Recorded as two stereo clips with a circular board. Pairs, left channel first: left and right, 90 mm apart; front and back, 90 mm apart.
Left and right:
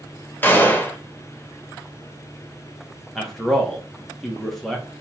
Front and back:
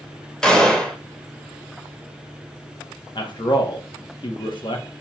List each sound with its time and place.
0.4 s a gunshot: 70° left, 0.7 m
3.1 s a man speaking: straight ahead, 1.0 m